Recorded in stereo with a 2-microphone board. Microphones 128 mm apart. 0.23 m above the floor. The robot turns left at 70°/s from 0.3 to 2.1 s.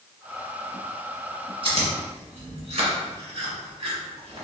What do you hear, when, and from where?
1.6 s chewing: 45° right (ahead or behind), 1.7 m; by 4.4 s 60° right (ahead or behind), 1.7 m